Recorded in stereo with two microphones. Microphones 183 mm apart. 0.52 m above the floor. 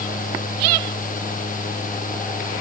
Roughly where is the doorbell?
No doorbell in this recording.